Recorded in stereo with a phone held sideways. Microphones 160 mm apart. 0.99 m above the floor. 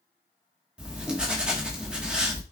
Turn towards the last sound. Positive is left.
turn(degrees=-5)  # may be behind; listen again after turning